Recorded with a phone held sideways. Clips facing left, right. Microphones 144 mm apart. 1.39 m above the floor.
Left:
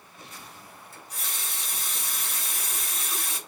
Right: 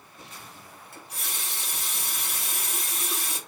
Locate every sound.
0.9 s a running tap: 60° right (ahead or behind), 1.3 m